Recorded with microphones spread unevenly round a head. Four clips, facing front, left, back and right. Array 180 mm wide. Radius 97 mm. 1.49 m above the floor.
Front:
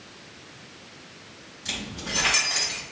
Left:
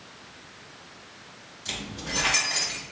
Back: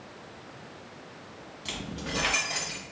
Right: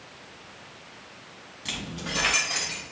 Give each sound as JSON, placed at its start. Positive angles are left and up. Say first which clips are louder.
{"t": 1.6, "sound": "keys jangling", "louder": "right 1 dB, front 1 dB", "azimuth_deg": -120, "distance_m": 2.0}